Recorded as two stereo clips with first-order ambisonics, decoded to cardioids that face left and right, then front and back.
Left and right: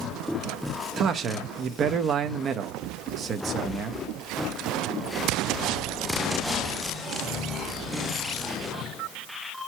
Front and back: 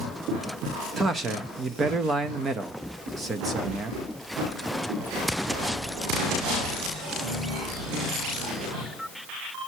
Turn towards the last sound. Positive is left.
turn(degrees=-125)